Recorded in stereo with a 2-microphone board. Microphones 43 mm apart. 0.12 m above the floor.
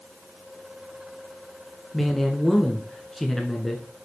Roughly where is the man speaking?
Centre.